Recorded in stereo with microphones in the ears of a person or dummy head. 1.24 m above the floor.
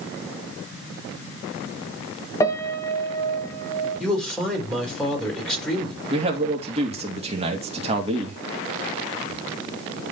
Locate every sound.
2.4 s a piano: 20° left (ahead or behind), 1.6 m
4.0 s a man speaking: 5° left (ahead or behind), 4 m
6.1 s a man speaking: 35° right (ahead or behind), 2.5 m